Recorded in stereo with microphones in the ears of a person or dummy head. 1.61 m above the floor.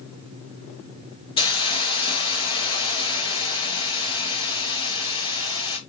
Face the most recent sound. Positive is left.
turn(degrees=25)  # may be behind; listen again after turning